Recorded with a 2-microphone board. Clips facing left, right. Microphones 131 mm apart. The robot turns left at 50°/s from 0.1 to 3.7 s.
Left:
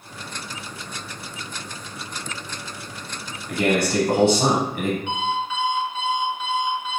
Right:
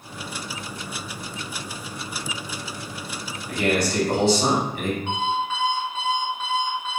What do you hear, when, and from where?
3.5 s a man speaking: 40° left (ahead or behind), 0.8 m
5.1 s an alarm clock: 45° right (ahead or behind), 1.8 m